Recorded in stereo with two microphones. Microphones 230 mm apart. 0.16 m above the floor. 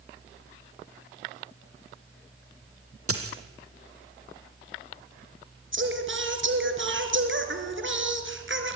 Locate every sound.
3.1 s a dropped coin: 80° right, 2 m
5.7 s singing: 55° right (ahead or behind), 2.5 m